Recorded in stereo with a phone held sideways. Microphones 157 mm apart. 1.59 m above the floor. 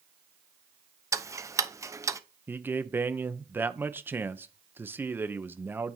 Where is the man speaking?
10° right (ahead or behind), 0.7 m.